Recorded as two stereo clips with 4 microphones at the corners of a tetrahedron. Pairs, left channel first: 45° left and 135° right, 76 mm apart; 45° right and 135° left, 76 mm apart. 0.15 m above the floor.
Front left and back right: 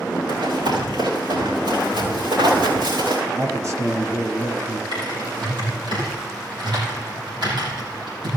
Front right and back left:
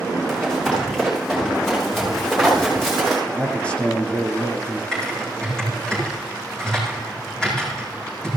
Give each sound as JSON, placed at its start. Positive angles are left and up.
{"t": 0.3, "sound": "running footsteps", "azimuth_deg": -135, "distance_m": 7.0}
{"t": 3.3, "sound": "a man speaking", "azimuth_deg": -115, "distance_m": 1.6}
{"t": 4.9, "sound": "typing on a keyboard", "azimuth_deg": -125, "distance_m": 6.5}